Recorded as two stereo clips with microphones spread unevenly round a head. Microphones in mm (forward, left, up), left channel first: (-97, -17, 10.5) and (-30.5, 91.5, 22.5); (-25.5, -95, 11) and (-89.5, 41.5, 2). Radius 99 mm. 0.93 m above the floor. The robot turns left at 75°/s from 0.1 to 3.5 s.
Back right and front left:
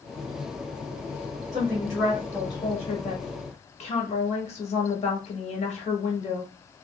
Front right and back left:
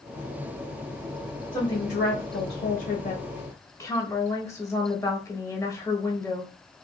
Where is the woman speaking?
15° left, 1.2 m; by 6.5 s 135° right, 1.2 m.